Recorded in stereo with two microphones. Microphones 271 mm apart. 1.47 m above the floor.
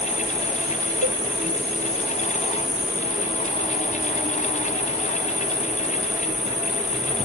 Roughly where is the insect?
Centre.